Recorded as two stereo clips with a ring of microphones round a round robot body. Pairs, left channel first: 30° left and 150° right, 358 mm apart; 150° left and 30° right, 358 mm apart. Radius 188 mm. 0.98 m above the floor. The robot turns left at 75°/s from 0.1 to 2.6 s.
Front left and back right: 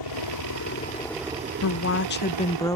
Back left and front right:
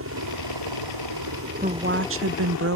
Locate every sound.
0.0 s a helicopter: 20° left; by 2.8 s 165° right
1.6 s a woman speaking: 30° left; by 2.8 s 45° right